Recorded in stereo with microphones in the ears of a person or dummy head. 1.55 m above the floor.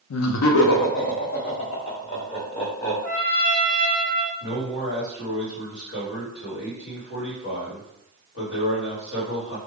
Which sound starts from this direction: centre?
A trumpet, at 3.0 s.